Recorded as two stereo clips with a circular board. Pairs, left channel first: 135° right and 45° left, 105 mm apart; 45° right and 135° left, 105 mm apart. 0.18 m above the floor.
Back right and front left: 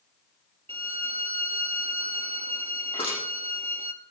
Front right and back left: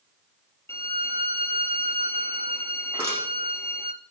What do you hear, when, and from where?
0.7 s a violin: 20° left, 0.9 m
2.9 s crushing: 165° right, 9.5 m